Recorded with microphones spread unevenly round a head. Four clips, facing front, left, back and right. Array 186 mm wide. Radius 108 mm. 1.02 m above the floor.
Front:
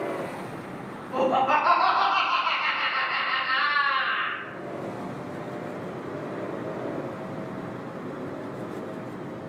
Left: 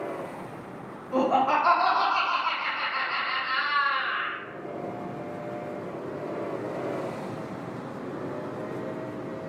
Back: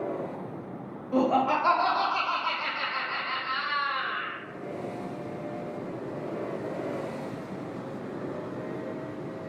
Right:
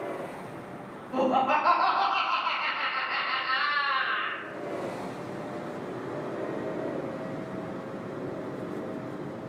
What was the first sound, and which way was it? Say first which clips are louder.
Laughter: left 2 dB, front 2 dB; 90° left.